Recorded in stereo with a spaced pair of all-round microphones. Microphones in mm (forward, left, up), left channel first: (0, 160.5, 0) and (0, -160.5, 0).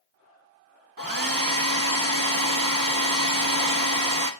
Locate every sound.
1.0 s a hair dryer: 80° right, 1.5 m